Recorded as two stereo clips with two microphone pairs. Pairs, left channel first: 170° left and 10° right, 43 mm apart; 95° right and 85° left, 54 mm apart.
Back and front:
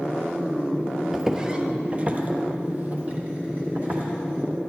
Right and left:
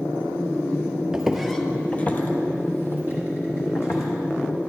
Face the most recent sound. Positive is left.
turn(degrees=-60)